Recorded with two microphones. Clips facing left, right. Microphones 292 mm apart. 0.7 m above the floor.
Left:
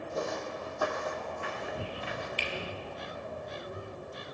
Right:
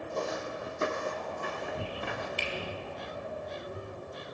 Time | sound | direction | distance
0.1 | footsteps | 5° left (ahead or behind) | 1.9 m
2.4 | a finger snap | 55° right (ahead or behind) | 5 m